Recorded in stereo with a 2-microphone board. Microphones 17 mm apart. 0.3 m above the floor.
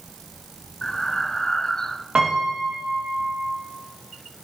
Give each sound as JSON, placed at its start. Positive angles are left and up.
{"t": 0.8, "sound": "breathing", "side_deg": 30, "distance_m": 1.2}
{"t": 2.1, "sound": "a piano", "side_deg": -90, "distance_m": 7.5}